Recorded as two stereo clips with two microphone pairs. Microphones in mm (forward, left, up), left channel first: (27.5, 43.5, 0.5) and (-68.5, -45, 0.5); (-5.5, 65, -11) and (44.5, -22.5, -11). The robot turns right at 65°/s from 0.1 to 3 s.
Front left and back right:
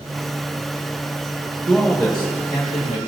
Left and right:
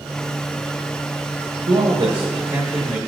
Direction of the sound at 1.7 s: 70° right.